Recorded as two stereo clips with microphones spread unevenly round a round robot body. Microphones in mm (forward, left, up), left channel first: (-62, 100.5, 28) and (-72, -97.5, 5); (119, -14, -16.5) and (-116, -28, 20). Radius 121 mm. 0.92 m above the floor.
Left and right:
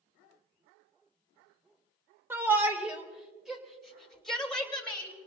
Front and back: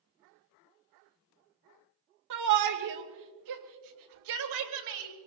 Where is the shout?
170° right, 3 m; by 5.1 s 170° left, 4.5 m.